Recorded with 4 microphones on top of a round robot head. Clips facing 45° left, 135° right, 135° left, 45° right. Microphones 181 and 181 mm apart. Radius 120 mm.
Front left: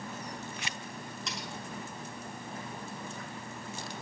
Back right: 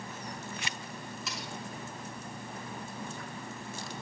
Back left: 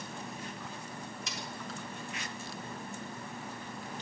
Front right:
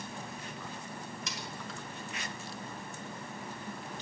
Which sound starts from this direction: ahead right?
Cutlery clinking, at 1.3 s.